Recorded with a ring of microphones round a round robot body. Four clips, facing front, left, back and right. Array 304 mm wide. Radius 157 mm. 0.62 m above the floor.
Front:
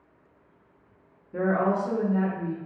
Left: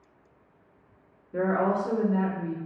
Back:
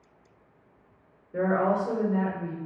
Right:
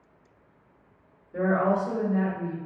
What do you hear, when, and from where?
1.3 s a woman speaking: 35° left, 1.8 m